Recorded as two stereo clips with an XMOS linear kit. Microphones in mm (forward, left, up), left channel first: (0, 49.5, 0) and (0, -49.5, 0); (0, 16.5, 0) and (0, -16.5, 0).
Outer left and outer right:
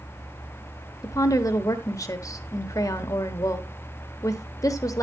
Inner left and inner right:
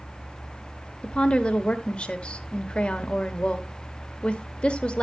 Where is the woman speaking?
35° left (ahead or behind), 1.1 m.